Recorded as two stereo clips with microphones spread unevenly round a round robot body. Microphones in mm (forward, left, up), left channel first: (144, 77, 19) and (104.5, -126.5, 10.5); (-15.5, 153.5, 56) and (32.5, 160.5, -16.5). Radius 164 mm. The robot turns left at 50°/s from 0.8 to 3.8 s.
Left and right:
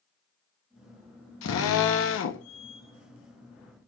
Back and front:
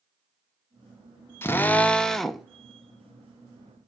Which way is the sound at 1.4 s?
110° left.